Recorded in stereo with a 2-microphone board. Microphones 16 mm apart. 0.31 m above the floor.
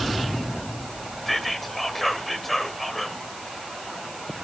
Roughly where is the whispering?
Centre.